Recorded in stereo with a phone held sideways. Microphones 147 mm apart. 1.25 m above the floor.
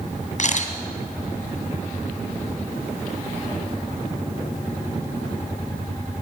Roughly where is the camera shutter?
Left.